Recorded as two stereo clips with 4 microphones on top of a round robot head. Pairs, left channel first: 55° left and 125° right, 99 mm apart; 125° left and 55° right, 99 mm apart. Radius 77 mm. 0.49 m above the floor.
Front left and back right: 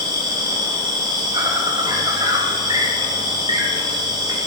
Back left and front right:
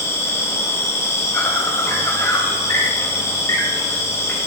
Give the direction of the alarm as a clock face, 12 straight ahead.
I don't hear an alarm.